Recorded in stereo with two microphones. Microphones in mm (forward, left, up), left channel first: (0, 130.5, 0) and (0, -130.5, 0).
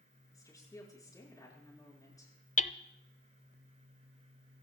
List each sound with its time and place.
0.3 s a woman speaking: 15° left (ahead or behind), 6.5 m
2.6 s hammering: 30° left (ahead or behind), 0.6 m